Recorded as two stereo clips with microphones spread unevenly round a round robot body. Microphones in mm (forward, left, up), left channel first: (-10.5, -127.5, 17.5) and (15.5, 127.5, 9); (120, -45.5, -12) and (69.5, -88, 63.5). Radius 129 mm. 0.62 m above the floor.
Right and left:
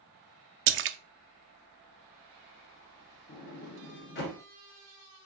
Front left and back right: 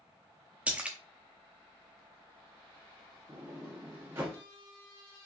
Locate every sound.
0.7 s a splash: 90° left, 0.5 m
3.3 s a sliding door: 140° right, 1.3 m